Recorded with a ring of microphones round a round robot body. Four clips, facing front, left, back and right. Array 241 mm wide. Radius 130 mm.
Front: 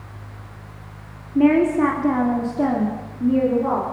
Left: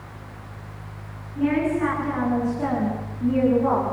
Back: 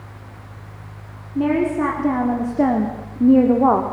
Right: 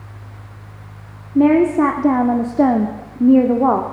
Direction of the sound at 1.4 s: 75° right.